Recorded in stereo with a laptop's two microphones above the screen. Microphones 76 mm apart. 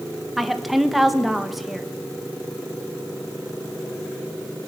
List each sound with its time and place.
0.4 s a woman speaking: centre (ahead or behind), 1.1 m